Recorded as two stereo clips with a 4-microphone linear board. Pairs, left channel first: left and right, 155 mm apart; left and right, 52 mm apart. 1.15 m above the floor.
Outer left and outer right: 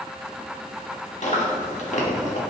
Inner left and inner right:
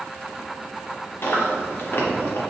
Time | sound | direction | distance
1.2 | chewing | 50° left (ahead or behind) | 1.5 m